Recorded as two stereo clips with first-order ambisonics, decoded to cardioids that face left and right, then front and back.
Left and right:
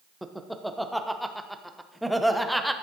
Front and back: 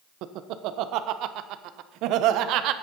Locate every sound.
0.2 s laughter: straight behind, 0.7 m